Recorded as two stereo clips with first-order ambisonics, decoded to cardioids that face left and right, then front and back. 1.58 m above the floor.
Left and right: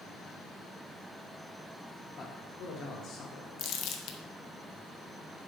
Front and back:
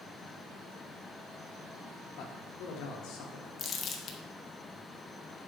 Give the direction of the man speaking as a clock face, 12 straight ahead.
11 o'clock.